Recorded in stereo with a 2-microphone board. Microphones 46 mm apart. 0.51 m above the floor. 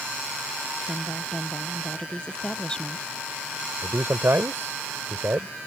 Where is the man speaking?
60° right (ahead or behind).